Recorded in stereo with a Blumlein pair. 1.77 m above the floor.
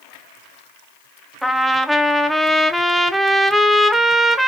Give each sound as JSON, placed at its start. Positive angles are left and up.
{"t": 1.4, "sound": "a trumpet", "azimuth_deg": -5, "distance_m": 0.6}